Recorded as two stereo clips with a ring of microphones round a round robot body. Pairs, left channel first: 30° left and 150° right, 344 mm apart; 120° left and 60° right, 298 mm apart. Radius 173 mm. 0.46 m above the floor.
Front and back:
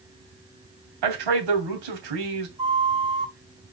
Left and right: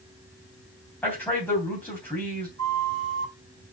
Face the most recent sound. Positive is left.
turn(degrees=-75)